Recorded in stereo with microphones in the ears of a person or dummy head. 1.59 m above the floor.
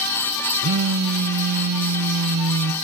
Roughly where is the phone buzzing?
Right.